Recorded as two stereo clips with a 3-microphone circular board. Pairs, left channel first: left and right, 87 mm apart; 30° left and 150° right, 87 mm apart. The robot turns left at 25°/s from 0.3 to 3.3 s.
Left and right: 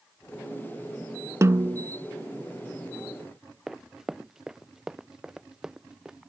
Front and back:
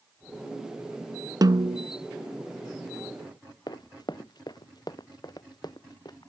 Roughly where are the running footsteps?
Ahead.